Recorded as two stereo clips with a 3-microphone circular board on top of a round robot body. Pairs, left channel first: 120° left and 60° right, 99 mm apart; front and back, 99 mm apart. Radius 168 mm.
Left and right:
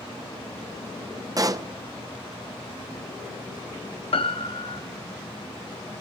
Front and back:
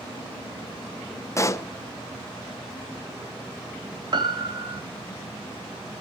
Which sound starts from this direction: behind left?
A piano, at 4.1 s.